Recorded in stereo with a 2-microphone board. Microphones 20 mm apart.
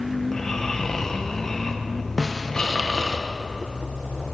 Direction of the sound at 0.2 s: 20° left (ahead or behind).